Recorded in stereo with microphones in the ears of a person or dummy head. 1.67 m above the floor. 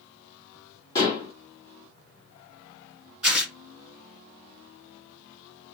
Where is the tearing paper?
Centre (ahead or behind), 1.5 m.